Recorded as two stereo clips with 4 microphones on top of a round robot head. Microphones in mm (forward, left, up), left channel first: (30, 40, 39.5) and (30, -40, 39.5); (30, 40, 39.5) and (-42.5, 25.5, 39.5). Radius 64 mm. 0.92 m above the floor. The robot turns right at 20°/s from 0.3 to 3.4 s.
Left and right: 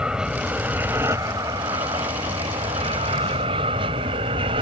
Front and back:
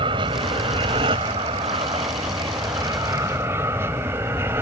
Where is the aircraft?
170° right; by 4.6 s 105° right.